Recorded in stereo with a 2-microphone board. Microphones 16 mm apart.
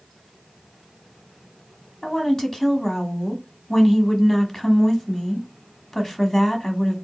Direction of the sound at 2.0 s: 25° left (ahead or behind).